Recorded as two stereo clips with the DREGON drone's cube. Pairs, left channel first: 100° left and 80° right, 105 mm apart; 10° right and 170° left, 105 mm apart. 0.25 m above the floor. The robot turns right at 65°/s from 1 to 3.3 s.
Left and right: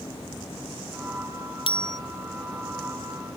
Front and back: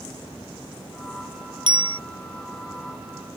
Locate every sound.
1.7 s a bicycle bell: 130° left; by 2.0 s 150° left